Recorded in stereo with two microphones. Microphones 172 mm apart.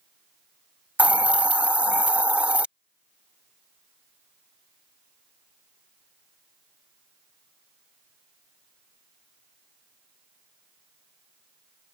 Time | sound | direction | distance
1.0 | a hiss | 5° right (ahead or behind) | ?